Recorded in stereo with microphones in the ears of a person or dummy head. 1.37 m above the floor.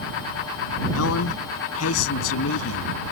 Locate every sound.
0.9 s a man speaking: 90° left; by 2.9 s 85° left